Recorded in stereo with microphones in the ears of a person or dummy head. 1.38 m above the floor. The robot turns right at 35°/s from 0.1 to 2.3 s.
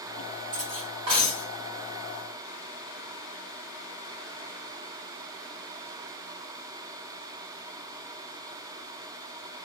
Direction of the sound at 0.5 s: 45° right.